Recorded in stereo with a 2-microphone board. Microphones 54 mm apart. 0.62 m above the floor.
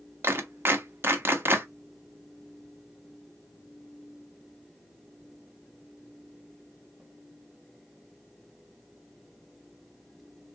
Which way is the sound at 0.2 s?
40° right (ahead or behind).